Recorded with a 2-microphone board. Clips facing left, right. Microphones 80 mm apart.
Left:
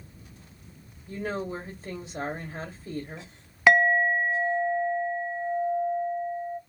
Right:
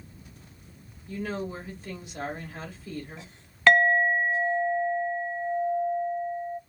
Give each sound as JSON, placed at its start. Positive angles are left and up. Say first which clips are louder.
{"t": 1.1, "sound": "a woman speaking", "louder": "left 1 dB", "side_deg": 30, "distance_m": 1.1}
{"t": 3.7, "sound": "a clink", "louder": "even", "side_deg": 10, "distance_m": 0.5}